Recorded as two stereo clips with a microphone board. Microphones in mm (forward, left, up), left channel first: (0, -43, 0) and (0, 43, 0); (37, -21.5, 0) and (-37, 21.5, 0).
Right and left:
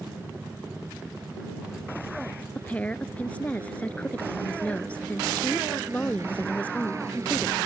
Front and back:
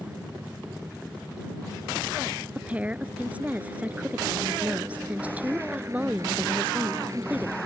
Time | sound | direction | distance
0.0 | a helicopter | 105° left | ?
2.5 | a woman speaking | 150° right | ?